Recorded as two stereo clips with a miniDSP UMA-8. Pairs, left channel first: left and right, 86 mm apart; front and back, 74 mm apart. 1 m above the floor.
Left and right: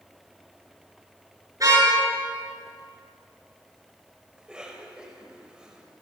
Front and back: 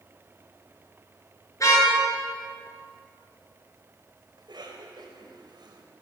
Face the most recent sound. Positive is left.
turn(degrees=-170)